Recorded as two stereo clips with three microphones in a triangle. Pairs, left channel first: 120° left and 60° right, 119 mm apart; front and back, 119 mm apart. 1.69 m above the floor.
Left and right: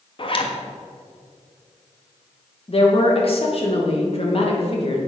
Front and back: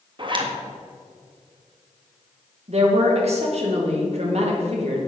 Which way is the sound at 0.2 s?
145° left.